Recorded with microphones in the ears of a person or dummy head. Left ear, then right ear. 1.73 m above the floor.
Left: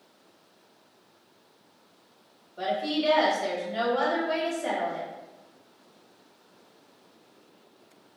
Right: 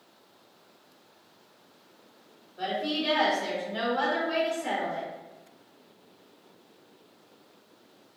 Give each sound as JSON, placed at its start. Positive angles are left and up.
{"t": 2.6, "sound": "a woman speaking", "side_deg": 60, "distance_m": 1.4}